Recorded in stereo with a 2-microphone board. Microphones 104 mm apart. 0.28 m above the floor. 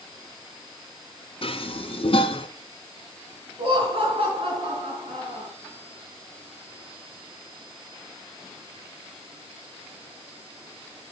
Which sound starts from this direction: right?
Laughter, at 3.6 s.